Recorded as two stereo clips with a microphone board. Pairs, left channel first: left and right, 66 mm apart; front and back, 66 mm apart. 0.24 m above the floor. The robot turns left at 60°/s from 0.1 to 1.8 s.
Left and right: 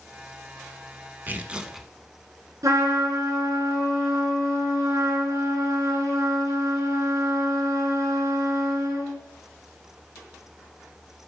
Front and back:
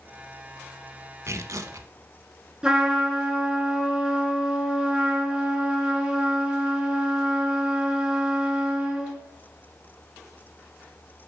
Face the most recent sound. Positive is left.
turn(degrees=-100)